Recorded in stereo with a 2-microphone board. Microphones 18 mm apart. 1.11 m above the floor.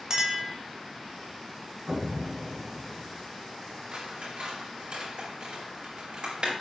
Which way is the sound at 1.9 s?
45° right (ahead or behind).